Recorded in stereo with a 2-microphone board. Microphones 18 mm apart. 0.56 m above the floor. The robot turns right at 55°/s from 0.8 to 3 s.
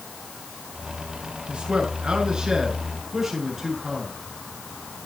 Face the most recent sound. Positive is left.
turn(degrees=-15)